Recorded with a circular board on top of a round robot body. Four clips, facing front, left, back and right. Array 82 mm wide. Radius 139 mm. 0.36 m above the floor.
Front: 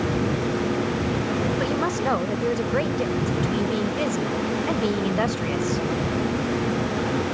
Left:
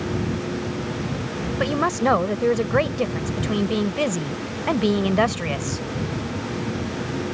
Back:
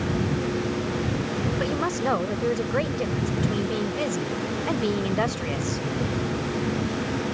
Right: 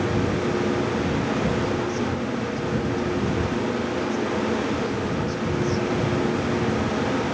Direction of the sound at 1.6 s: 90° left.